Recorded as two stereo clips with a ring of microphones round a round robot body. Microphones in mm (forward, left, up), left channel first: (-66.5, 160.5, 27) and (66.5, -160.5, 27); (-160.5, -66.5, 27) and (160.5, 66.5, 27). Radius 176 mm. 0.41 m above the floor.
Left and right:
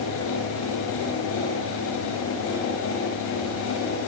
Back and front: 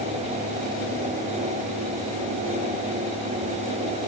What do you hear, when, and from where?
Only background noise.